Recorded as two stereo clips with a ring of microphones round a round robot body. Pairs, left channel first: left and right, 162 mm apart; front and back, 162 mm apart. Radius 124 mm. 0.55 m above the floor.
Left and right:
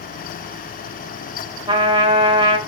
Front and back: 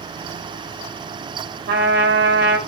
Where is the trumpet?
150° right, 3 m.